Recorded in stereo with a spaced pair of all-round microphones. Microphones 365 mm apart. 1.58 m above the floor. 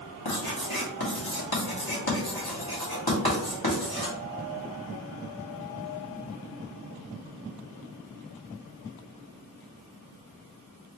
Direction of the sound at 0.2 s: 80° left.